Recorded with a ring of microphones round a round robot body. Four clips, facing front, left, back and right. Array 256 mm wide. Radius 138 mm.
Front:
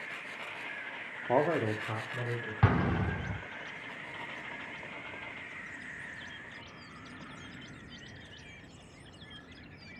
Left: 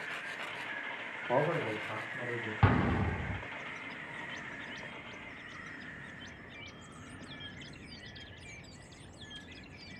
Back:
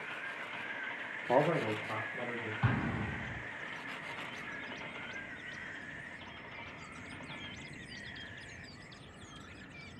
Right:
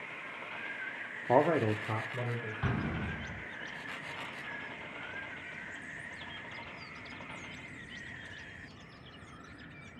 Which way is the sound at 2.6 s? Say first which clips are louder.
Left 7 dB, front 7 dB; 40° left.